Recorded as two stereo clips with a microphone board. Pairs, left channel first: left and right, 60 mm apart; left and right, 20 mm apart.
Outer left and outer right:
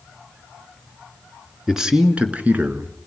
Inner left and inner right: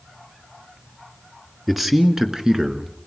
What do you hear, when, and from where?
1.7 s a man speaking: 5° right (ahead or behind), 2 m; by 3.0 s 40° right (ahead or behind), 2 m